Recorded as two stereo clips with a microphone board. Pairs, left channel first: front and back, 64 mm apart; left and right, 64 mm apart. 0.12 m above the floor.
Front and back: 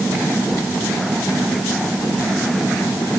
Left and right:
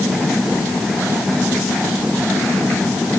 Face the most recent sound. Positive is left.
No sound to turn to.